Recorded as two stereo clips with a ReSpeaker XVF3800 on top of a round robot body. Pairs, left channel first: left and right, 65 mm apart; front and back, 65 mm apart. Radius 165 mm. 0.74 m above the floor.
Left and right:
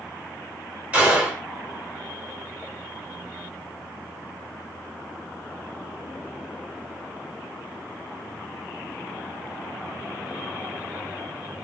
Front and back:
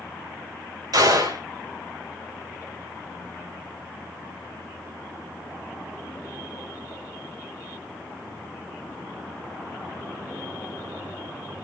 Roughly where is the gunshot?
Behind.